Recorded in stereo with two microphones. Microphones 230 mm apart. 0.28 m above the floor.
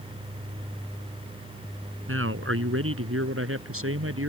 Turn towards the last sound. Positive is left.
turn(degrees=-70)  # may be behind; listen again after turning